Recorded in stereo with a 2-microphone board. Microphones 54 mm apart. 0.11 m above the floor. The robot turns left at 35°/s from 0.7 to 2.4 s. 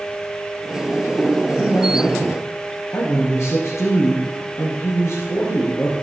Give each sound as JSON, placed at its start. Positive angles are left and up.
{"t": 1.5, "sound": "a man speaking", "azimuth_deg": 140, "distance_m": 3.0}